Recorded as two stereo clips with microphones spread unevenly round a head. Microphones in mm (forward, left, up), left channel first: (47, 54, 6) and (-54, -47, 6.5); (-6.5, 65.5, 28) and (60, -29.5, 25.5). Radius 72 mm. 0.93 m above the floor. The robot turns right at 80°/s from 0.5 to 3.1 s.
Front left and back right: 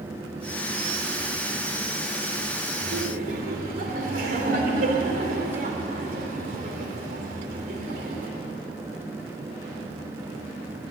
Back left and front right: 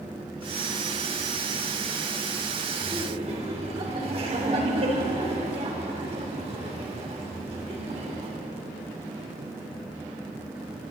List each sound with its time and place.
2.8 s laughter: 125° right, 3 m; by 8.3 s 105° right, 3 m